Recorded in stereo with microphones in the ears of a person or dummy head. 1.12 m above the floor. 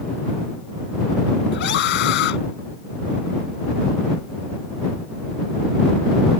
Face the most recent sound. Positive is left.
turn(degrees=55)  # may be behind; listen again after turning